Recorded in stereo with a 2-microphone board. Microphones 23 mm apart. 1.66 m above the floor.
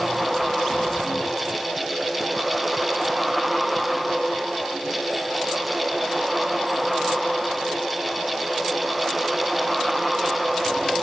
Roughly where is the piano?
No piano in this recording.